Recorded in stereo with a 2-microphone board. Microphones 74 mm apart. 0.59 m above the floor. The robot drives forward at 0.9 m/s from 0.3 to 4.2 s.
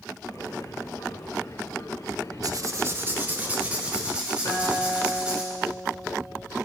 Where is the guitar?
60° left (ahead or behind), 2.5 m.